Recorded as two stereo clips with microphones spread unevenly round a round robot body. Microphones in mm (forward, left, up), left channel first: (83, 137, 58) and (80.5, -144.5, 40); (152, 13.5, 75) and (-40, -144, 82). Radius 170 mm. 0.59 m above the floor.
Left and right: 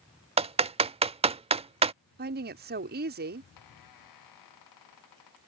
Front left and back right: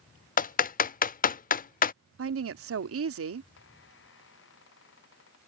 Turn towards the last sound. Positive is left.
turn(degrees=90)